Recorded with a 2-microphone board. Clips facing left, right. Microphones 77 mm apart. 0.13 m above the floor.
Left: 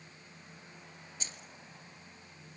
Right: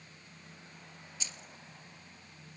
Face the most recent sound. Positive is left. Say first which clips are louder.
# even
turn(degrees=45)  # may be behind; listen again after turning